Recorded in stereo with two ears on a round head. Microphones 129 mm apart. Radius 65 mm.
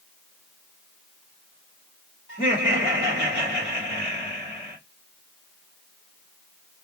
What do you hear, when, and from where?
2.3 s laughter: 40° left (ahead or behind), 1.7 m